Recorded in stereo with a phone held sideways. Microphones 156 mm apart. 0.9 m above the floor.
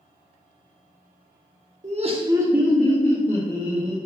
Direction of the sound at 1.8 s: 50° right (ahead or behind).